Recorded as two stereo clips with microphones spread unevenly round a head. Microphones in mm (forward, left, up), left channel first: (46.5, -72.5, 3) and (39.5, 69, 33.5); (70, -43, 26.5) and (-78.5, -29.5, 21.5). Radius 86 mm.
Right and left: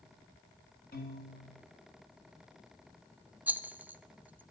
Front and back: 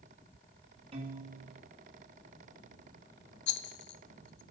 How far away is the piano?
About 2 m.